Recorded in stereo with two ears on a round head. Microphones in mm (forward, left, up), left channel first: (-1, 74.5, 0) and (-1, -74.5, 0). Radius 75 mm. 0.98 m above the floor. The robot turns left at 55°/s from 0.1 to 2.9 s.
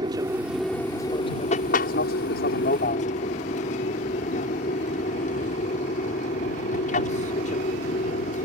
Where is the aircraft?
150° right; by 8.5 s 55° left.